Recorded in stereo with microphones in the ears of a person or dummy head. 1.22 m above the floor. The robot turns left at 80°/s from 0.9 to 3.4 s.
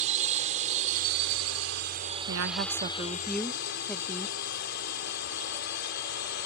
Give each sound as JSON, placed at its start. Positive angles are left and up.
{"t": 0.0, "sound": "a drone", "azimuth_deg": -45}
{"t": 2.3, "sound": "a woman speaking", "azimuth_deg": -100}